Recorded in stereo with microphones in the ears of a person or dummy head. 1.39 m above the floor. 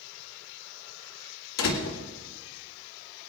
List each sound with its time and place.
1.6 s a door slam: 80° left, 2.5 m